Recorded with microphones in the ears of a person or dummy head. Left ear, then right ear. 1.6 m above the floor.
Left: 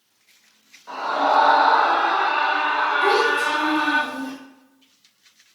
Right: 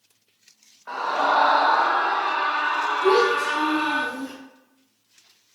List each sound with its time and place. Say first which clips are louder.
0.9 s a scream: left 2 dB; 25° right (ahead or behind), 0.8 m; by 4.0 s 65° left (ahead or behind), 1.4 m
3.0 s a child speaking: right 2 dB; 60° left (ahead or behind), 1.4 m